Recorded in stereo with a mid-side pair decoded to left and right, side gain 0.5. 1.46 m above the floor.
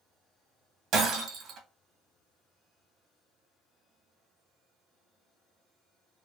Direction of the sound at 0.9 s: 65° right.